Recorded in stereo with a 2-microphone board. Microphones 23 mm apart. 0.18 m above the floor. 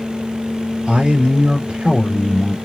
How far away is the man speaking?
About 3 m.